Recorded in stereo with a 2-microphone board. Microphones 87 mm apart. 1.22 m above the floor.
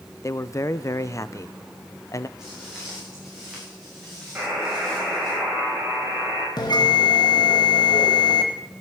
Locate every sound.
0.2 s a man speaking: 35° left (ahead or behind), 0.5 m
2.4 s footsteps: 5° right (ahead or behind), 8.5 m; by 5.3 s 5° left (ahead or behind), 9.5 m
4.3 s a buzzer: 15° right (ahead or behind), 8 m
6.6 s a bell: 55° left (ahead or behind), 2.0 m